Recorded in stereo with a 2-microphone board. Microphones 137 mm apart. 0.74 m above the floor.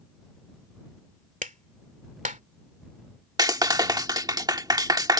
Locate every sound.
1.4 s a clap: 65° right (ahead or behind)
3.4 s a clap: 30° right (ahead or behind)